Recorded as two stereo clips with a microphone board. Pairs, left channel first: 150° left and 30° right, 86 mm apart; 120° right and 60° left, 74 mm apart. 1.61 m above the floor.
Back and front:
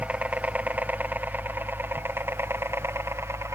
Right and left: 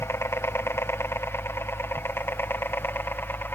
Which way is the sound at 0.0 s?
95° right.